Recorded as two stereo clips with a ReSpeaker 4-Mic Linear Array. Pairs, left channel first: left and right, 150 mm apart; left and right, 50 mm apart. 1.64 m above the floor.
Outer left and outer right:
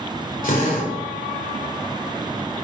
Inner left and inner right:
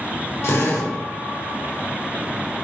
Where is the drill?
65° left (ahead or behind), 3 m.